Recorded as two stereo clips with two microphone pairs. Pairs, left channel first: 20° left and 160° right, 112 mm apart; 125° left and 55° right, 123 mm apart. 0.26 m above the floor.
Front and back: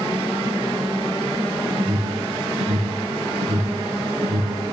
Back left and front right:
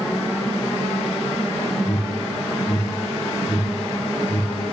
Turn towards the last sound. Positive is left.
turn(degrees=-175)